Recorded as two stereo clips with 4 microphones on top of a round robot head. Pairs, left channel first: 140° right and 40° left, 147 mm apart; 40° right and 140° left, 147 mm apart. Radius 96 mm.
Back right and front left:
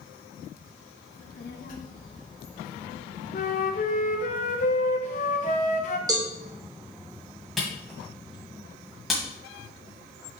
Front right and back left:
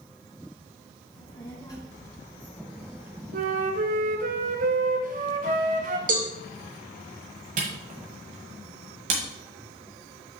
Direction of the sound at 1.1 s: 110° right.